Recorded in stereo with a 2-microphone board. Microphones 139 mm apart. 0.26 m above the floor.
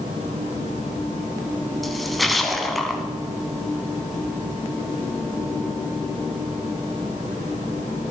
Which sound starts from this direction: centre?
A splash, at 1.8 s.